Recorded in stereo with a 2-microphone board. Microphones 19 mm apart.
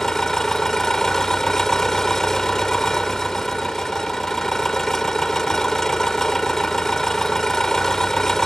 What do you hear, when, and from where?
0.0 s an engine running: 25° left (ahead or behind)